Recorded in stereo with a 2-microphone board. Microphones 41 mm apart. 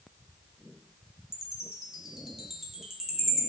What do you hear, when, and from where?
1.3 s a chime: 10° right (ahead or behind), 0.6 m